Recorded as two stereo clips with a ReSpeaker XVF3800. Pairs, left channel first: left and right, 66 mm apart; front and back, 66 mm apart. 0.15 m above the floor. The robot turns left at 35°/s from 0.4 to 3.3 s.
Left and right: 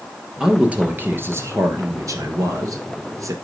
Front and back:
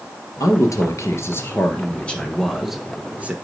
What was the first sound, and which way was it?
A man speaking, 10° right.